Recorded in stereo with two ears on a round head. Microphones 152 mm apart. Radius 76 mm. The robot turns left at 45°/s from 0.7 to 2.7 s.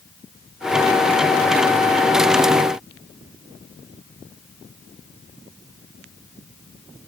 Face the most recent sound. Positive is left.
No sound to turn to.